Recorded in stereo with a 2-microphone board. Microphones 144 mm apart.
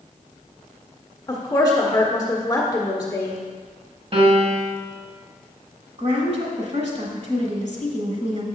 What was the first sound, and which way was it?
A woman speaking, 25° left (ahead or behind).